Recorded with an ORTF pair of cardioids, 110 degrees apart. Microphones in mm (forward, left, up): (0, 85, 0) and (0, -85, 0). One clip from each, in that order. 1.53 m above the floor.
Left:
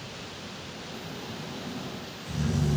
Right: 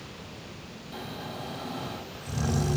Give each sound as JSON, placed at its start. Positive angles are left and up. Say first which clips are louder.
{"t": 0.9, "sound": "snoring", "louder": "right 5 dB", "azimuth_deg": -70, "distance_m": 3.0}